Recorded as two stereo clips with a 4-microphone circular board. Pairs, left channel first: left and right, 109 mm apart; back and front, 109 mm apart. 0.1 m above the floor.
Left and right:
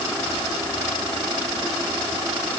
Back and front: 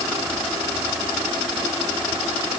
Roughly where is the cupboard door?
No cupboard door in this recording.